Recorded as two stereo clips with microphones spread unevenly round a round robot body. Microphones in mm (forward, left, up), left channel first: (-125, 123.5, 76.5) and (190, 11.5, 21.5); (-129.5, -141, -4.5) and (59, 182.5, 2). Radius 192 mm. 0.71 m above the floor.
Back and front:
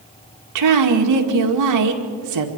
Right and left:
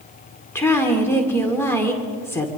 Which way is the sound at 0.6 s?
35° right.